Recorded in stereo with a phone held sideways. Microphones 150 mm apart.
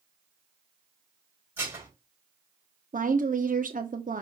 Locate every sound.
1.6 s dishes clattering: 15° right (ahead or behind), 4.5 m
2.9 s a woman speaking: 65° right (ahead or behind), 0.7 m